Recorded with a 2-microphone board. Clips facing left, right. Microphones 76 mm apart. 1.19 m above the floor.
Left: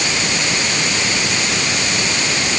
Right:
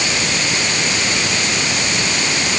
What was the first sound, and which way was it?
Only background noise.